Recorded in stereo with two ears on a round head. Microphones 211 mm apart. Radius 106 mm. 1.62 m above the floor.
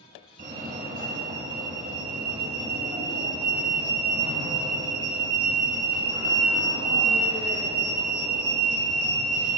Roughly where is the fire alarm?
Right.